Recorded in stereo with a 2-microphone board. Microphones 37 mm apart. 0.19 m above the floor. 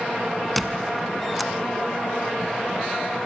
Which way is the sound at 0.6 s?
Centre (ahead or behind).